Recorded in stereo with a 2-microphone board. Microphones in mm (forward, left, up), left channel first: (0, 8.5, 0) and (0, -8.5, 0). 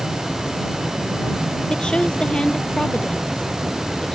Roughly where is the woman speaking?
Left.